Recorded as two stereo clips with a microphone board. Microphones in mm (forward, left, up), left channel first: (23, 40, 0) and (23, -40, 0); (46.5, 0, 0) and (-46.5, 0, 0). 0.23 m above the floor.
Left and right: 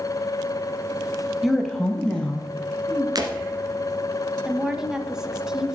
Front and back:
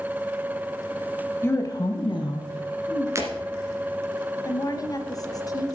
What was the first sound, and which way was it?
A woman speaking, 5° right.